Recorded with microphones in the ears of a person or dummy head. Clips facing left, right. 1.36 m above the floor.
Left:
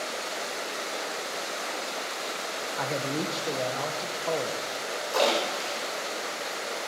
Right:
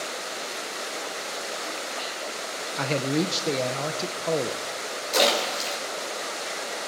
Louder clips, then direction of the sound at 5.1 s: Right 2 dB; 25° right (ahead or behind).